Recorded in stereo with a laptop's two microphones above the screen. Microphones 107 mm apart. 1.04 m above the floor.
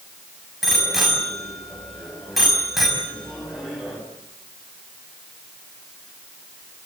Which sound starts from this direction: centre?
A bicycle bell, at 0.6 s.